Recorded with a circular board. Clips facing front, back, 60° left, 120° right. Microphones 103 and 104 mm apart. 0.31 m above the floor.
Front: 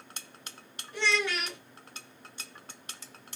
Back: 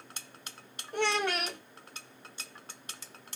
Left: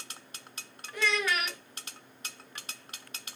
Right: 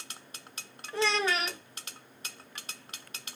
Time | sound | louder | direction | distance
0.9 | a child speaking | back 1 dB, right 2 dB | 170° right | 0.6 m